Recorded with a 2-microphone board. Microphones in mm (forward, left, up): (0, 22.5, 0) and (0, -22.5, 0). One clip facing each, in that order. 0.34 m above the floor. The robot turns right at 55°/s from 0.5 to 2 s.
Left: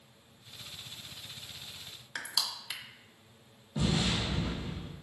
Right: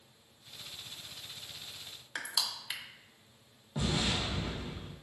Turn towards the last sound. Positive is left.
turn(degrees=-30)  # may be behind; listen again after turning